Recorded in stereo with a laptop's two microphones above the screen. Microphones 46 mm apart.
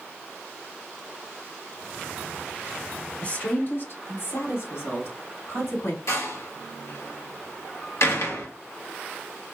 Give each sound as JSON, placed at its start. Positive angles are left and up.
{"t": 3.2, "sound": "a woman speaking", "side_deg": 30, "distance_m": 1.9}
{"t": 6.1, "sound": "a door slam", "side_deg": 75, "distance_m": 1.6}